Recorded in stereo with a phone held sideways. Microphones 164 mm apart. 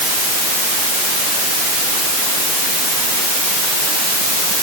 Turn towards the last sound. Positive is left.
No sound to turn to.